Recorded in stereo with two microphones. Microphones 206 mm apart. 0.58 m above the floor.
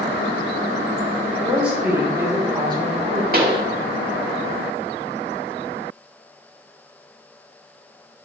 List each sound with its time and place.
1.4 s a woman speaking: centre (ahead or behind), 2.5 m; by 3.2 s 30° right (ahead or behind), 2 m
3.3 s a pop: 45° right (ahead or behind), 1.0 m